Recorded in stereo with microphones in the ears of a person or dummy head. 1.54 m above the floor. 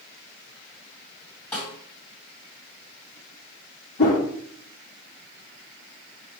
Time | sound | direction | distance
1.5 | a snare drum | 10° left (ahead or behind) | 2 m
4.0 | a whoosh | 40° left (ahead or behind) | 1.4 m